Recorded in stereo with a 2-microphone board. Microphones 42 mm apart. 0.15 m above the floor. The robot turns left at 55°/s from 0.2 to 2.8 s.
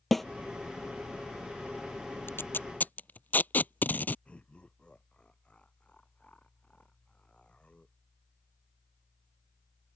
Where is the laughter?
30° left (ahead or behind).